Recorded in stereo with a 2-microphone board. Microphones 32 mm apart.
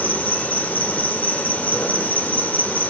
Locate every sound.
0.0 s an insect: 55° left (ahead or behind), 2.5 m